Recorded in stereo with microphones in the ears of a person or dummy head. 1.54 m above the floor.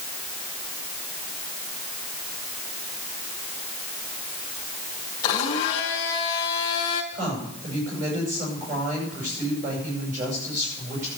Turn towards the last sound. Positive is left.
turn(degrees=-45)  # may be behind; listen again after turning